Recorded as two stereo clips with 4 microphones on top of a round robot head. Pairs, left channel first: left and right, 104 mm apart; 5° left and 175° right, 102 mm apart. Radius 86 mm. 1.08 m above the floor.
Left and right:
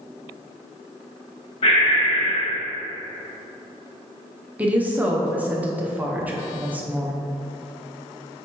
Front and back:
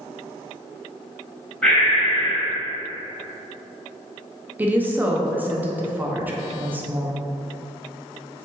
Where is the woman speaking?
135° right, 0.6 m.